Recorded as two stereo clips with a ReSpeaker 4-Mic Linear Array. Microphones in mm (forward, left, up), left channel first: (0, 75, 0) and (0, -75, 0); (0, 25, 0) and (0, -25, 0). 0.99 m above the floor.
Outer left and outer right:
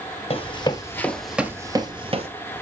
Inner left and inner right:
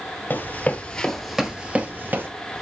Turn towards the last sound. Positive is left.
turn(degrees=-45)  # may be behind; listen again after turning